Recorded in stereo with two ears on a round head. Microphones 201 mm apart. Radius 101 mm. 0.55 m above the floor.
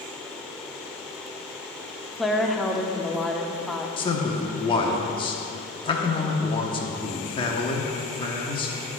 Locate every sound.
2.2 s a woman speaking: centre (ahead or behind), 0.7 m
4.0 s a man speaking: 25° left (ahead or behind), 1.0 m